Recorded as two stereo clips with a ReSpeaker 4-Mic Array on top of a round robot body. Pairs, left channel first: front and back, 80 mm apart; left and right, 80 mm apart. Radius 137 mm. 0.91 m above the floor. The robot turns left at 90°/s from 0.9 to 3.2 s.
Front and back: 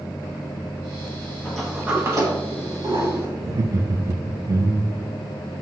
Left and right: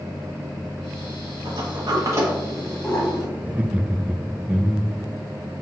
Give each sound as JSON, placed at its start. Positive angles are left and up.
{"t": 1.4, "sound": "a sliding door", "azimuth_deg": -75, "distance_m": 2.0}
{"t": 3.4, "sound": "laughter", "azimuth_deg": -155, "distance_m": 0.6}